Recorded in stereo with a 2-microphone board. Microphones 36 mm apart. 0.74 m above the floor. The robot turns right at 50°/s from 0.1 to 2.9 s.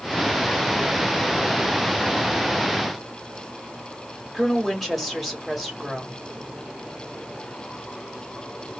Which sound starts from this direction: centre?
A woman speaking, at 4.3 s.